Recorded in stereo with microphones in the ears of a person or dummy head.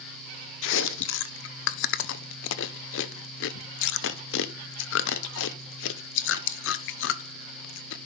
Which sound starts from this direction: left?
Chewing, at 0.6 s.